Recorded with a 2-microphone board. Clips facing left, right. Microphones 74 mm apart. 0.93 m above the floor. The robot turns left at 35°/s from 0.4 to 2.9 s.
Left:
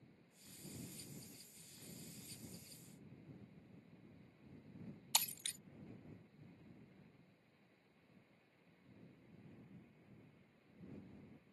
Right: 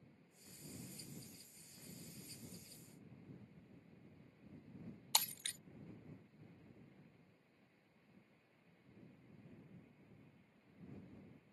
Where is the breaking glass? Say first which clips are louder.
Right 2 dB; 55° right (ahead or behind).